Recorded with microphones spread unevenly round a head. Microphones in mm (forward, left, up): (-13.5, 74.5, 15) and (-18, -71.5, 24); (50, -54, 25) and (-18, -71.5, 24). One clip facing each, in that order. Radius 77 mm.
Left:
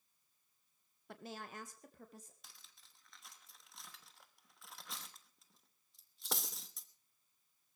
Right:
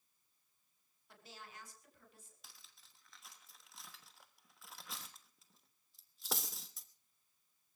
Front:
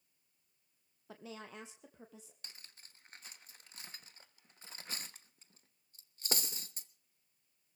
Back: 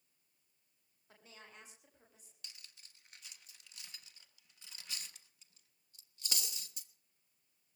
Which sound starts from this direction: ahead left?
A woman speaking, at 1.1 s.